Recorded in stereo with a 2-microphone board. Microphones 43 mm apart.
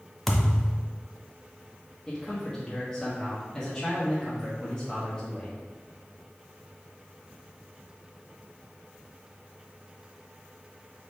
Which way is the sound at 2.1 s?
20° left (ahead or behind).